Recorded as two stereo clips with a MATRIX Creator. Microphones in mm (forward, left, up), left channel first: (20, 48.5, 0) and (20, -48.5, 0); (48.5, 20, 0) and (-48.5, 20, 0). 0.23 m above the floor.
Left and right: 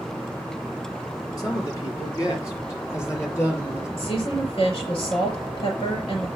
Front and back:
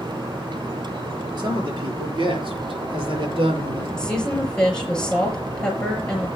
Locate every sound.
1.4 s a man speaking: 135° left, 5.5 m; by 3.9 s 155° left, 6.5 m
4.0 s a woman speaking: 80° left, 5 m